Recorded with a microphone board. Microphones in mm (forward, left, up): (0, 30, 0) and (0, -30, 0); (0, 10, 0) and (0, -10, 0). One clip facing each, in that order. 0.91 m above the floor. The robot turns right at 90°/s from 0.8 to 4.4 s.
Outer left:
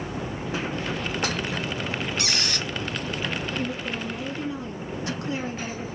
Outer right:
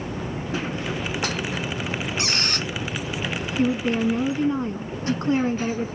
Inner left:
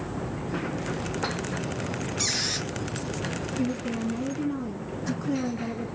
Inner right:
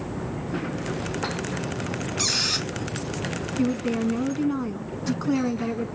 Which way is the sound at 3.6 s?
125° right.